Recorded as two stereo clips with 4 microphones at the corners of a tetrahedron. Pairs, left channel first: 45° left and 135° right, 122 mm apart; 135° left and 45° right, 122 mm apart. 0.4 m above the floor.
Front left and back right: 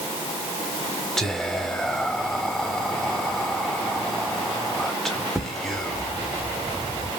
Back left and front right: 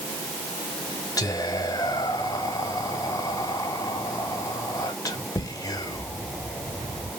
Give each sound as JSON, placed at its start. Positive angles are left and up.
{"t": 1.2, "sound": "whispering", "azimuth_deg": 130, "distance_m": 1.1}